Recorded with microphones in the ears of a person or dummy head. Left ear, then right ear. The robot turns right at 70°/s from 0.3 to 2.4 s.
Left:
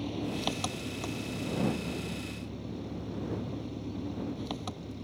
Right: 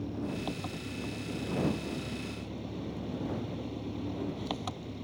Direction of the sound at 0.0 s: 50° left.